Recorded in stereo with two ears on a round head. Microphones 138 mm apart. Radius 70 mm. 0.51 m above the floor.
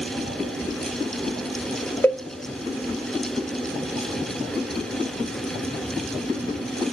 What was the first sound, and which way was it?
A cowbell, 10° left (ahead or behind).